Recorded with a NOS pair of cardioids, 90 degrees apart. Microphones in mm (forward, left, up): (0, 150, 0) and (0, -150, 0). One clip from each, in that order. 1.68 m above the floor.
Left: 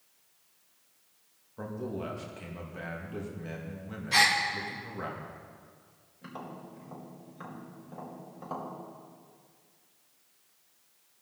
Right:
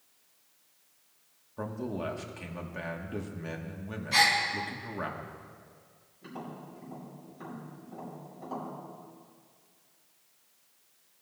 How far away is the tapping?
About 4.5 m.